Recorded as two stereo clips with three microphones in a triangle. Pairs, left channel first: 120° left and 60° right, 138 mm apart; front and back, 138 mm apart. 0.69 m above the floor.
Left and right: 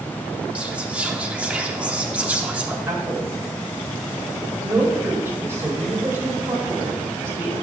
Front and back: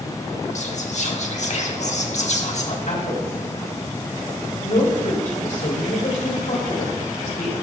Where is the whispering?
20° left, 1.3 m.